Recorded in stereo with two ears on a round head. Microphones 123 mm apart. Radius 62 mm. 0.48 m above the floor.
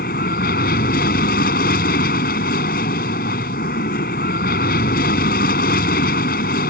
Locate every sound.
0.0 s an aircraft: 70° left (ahead or behind)